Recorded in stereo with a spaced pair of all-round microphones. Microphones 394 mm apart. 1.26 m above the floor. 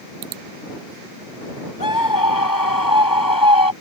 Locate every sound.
1.8 s a scream: 55° left (ahead or behind)